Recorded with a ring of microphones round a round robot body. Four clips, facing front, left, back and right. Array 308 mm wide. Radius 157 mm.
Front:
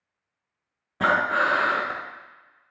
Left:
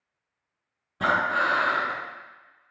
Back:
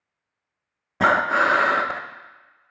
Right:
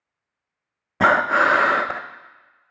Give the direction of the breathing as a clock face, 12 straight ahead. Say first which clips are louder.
Right 7 dB, back 3 dB; 4 o'clock.